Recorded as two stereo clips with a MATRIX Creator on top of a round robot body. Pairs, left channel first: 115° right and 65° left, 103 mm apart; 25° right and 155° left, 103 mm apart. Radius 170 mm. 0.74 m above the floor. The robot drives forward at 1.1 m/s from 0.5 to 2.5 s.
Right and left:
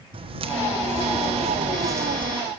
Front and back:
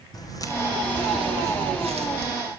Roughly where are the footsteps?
Ahead left.